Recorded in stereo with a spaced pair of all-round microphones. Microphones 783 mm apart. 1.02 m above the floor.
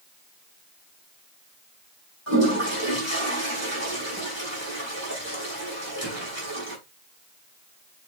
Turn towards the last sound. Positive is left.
turn(degrees=-20)  # may be behind; listen again after turning